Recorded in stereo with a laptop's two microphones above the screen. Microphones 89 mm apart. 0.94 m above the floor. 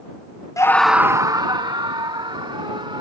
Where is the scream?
35° left (ahead or behind); by 3.0 s 70° right (ahead or behind).